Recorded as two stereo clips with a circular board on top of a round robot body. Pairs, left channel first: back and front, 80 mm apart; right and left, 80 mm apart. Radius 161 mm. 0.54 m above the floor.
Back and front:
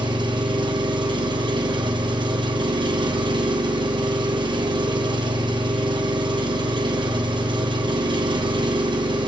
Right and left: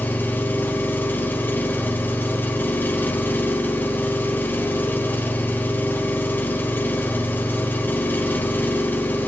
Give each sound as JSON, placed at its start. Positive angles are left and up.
{"t": 0.0, "sound": "an engine running", "azimuth_deg": -20, "distance_m": 1.2}